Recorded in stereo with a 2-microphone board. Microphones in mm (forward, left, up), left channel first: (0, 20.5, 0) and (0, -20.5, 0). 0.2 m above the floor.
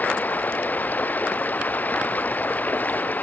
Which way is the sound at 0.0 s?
45° left (ahead or behind).